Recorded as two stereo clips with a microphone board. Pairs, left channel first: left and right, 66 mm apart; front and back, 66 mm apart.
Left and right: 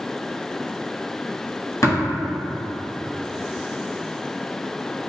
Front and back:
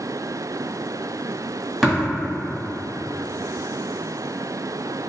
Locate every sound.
1.8 s tapping: 90° left, 1.5 m